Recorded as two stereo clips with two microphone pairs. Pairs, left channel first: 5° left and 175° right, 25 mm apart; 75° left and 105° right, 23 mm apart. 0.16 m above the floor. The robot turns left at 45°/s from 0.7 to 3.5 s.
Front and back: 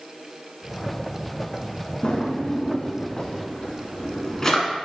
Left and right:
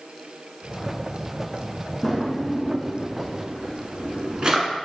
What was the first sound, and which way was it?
A drawer, 5° left.